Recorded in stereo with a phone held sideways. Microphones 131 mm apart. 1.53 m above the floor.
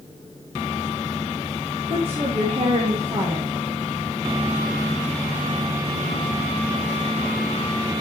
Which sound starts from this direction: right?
A woman speaking, at 1.9 s.